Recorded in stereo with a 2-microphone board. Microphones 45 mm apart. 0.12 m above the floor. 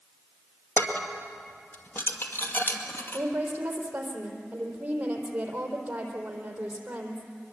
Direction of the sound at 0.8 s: 45° left (ahead or behind).